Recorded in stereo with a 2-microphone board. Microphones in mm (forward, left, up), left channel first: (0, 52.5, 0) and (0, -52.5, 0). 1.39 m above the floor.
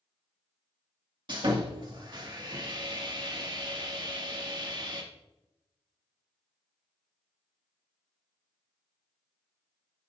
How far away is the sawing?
About 2.5 m.